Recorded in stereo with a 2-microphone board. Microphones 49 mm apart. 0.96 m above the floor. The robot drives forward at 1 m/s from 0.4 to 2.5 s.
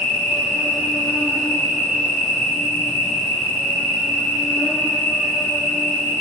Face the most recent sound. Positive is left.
turn(degrees=70)  # may be behind; listen again after turning